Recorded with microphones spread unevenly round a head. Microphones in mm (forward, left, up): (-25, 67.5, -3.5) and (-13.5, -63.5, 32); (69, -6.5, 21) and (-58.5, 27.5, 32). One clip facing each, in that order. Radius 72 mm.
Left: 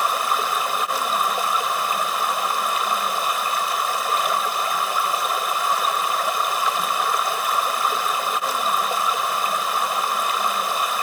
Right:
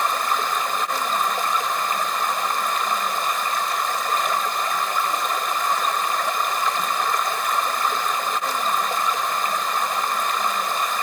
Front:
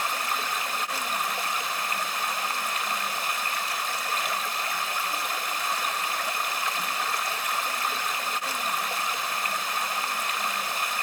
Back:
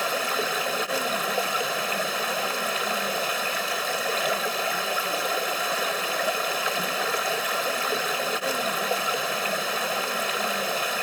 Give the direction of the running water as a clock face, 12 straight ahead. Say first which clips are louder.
Left 1 dB, back 4 dB; 6 o'clock.